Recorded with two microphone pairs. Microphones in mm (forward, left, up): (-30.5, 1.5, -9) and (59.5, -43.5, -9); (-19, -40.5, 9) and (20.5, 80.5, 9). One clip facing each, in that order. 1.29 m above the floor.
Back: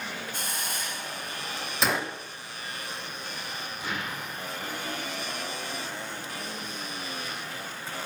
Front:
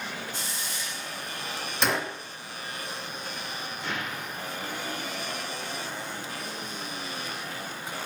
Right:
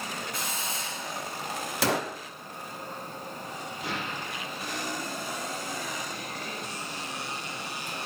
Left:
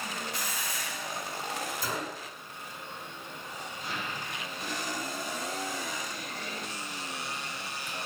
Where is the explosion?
125° right, 3.5 m.